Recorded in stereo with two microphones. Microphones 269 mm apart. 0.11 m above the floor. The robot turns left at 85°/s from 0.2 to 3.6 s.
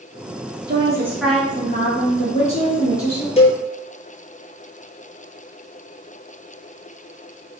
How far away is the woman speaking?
About 1.1 m.